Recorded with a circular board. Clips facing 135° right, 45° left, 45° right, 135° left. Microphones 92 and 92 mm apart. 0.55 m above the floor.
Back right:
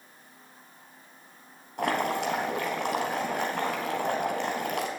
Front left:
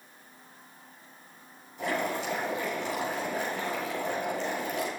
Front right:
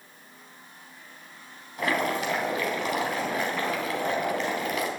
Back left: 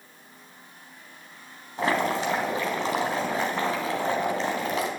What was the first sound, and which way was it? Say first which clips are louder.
Boiling: back right 3 dB, back left 2 dB; 160° right.